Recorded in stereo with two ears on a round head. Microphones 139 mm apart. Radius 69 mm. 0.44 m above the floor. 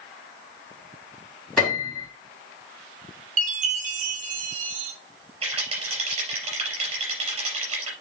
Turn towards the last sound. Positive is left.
turn(degrees=-40)  # may be behind; listen again after turning